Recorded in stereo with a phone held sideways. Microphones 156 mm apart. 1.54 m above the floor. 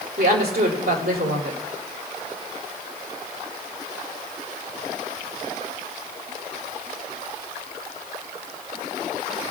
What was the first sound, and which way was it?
A woman speaking, 80° right.